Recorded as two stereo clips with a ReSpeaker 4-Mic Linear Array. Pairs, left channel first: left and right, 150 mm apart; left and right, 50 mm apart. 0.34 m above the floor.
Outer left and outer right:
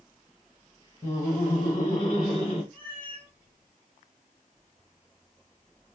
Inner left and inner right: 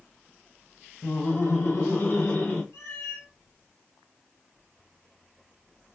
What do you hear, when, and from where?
1.0 s laughter: 55° left (ahead or behind), 2.5 m; by 2.6 s 45° left (ahead or behind), 2.5 m
2.7 s a cat meowing: 85° left, 2 m